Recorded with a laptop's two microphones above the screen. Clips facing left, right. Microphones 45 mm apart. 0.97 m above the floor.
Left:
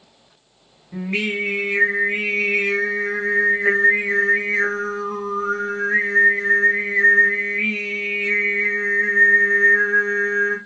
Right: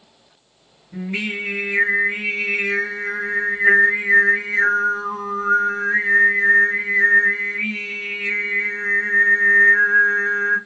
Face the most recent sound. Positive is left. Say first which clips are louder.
# left 2 dB
turn(degrees=80)